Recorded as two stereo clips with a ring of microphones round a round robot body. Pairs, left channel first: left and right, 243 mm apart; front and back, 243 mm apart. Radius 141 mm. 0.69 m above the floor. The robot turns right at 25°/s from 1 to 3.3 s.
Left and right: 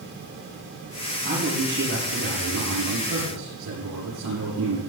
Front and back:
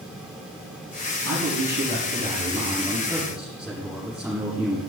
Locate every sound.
1.2 s a man speaking: 145° right, 6 m; by 4.8 s 95° right, 6 m